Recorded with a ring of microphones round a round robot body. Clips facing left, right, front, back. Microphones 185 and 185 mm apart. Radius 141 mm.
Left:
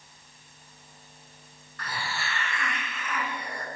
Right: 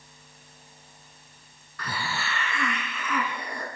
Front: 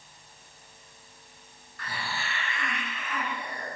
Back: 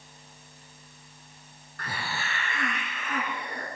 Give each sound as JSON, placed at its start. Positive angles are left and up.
{"t": 1.8, "sound": "a hiss", "azimuth_deg": -115, "distance_m": 2.5}